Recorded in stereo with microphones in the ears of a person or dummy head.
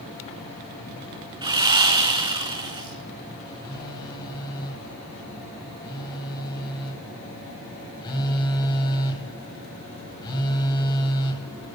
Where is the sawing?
25° right (ahead or behind), 4 m.